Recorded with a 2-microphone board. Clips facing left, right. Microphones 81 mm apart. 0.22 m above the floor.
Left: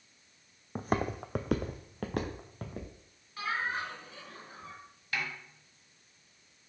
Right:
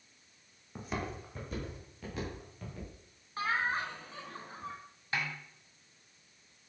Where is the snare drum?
25° right (ahead or behind), 1.6 m.